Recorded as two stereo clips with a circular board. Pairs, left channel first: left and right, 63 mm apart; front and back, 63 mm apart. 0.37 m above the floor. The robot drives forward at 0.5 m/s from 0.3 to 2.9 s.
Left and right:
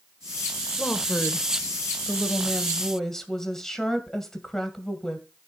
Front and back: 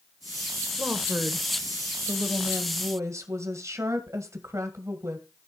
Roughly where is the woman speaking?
Behind left.